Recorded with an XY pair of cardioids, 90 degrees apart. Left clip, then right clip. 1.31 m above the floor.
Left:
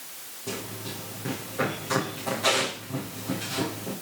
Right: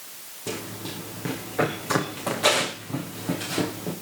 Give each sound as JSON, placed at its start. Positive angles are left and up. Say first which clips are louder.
{"t": 0.5, "sound": "running footsteps", "louder": "right 2 dB", "azimuth_deg": -60, "distance_m": 7.0}